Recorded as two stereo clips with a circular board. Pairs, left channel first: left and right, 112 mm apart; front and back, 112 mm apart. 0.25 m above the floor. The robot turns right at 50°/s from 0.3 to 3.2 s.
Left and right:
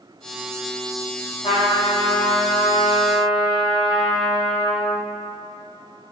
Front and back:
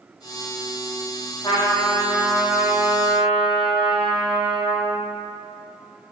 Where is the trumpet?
55° left, 3 m; by 5.0 s 145° left, 3 m.